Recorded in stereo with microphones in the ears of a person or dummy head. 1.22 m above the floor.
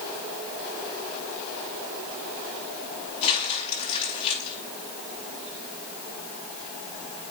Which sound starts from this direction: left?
Crumpling, at 3.2 s.